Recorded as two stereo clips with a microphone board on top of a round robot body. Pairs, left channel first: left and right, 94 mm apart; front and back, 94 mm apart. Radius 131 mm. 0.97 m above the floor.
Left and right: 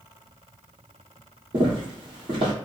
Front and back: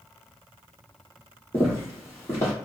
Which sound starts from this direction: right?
Footsteps, at 1.5 s.